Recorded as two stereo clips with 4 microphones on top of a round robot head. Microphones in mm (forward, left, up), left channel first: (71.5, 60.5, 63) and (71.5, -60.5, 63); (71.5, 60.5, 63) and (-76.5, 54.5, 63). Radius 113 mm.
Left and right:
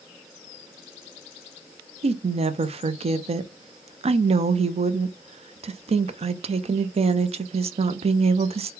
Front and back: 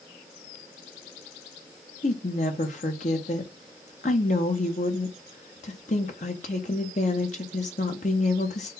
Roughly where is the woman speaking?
Ahead right.